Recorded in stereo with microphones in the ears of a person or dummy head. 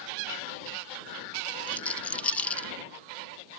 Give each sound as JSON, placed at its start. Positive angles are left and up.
{"t": 1.7, "sound": "a rattle", "side_deg": 10}